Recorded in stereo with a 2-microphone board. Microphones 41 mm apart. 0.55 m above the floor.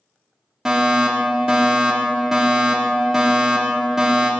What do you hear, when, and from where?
0.7 s a fire alarm: 10° right (ahead or behind), 1.6 m